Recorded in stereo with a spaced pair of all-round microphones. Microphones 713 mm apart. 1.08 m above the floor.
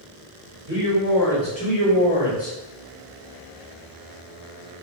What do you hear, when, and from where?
0.7 s a man speaking: 10° right (ahead or behind), 1.6 m; by 2.6 s 40° left (ahead or behind), 1.1 m